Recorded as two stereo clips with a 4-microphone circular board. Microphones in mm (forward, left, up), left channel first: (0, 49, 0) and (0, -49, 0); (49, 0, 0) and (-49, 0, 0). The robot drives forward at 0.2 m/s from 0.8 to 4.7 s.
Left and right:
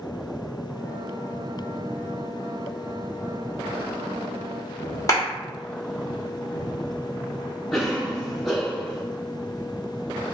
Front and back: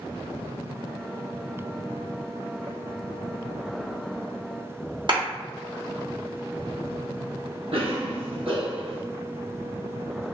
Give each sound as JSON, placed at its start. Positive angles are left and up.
{"t": 5.1, "sound": "a clap", "azimuth_deg": 145, "distance_m": 1.0}
{"t": 7.7, "sound": "a cough", "azimuth_deg": 180, "distance_m": 1.0}